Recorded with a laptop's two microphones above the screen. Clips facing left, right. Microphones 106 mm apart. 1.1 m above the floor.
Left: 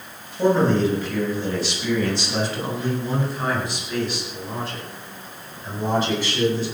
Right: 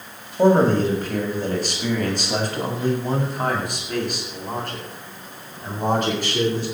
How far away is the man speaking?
About 6.5 m.